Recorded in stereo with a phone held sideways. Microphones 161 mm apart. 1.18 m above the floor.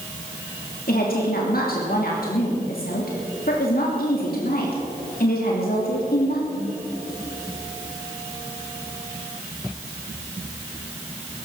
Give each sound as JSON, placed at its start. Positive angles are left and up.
{"t": 0.9, "sound": "a woman speaking", "side_deg": 70, "distance_m": 3.0}